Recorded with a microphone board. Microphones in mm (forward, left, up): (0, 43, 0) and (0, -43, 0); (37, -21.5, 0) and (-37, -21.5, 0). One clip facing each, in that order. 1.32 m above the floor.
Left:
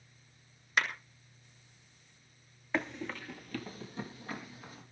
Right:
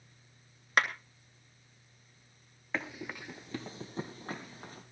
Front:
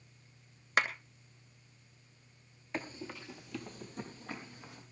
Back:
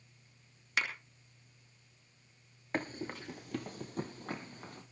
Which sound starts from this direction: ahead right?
A clap, at 0.8 s.